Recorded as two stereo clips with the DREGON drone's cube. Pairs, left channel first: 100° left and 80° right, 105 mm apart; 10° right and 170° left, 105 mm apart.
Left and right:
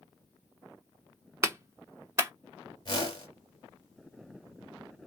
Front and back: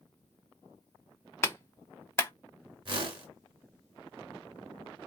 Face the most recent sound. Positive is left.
turn(degrees=140)